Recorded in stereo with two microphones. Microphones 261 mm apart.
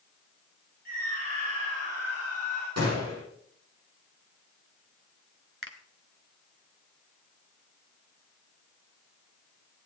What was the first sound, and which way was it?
A scream, 55° right (ahead or behind).